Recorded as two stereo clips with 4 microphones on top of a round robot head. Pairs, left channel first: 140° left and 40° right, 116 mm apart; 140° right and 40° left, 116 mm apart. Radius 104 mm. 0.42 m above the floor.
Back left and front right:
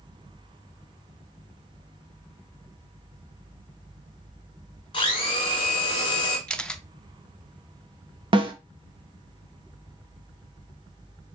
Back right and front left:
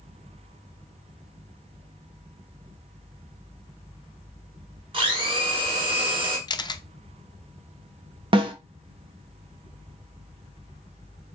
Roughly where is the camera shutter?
Behind right.